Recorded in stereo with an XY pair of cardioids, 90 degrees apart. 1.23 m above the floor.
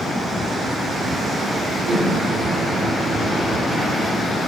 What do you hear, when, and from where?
1.9 s a microwave: 35° right, 2.5 m